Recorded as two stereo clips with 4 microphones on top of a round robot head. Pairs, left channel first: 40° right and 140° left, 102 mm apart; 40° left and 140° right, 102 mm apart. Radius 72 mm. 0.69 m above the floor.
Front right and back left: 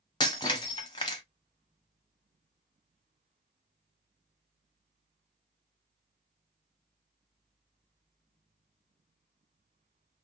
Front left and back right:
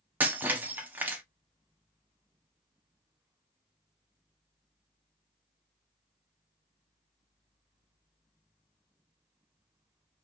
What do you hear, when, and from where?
0.2 s breaking glass: 70° right, 0.6 m